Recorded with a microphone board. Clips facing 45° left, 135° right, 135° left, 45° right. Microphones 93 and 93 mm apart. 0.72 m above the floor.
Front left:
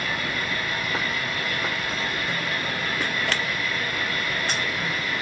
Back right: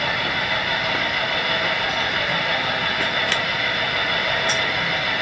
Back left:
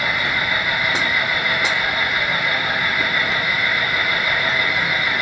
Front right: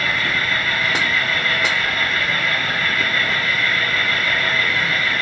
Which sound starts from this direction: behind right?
An engine running, at 0.0 s.